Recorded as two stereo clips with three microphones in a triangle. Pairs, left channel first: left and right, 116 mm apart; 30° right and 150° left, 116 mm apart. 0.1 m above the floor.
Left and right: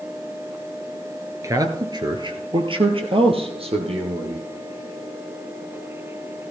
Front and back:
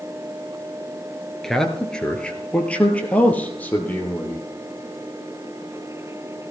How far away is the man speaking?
About 1.4 m.